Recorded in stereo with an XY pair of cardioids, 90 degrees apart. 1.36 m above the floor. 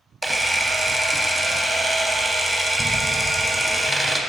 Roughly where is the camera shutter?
Ahead.